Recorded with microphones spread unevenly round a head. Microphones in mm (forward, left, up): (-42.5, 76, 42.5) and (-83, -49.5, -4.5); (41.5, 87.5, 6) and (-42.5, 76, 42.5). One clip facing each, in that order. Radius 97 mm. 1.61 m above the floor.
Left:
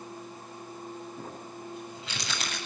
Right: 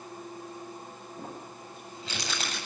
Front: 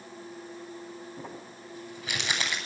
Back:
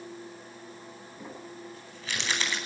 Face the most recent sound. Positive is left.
turn(degrees=-40)